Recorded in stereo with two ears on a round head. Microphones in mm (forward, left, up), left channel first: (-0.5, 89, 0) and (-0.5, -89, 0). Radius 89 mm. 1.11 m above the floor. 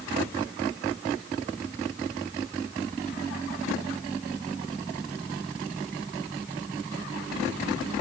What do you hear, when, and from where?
Only background noise.